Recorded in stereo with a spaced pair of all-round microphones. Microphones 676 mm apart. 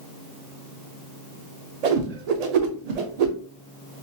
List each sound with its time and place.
1.8 s a whoosh: 70° right (ahead or behind), 0.6 m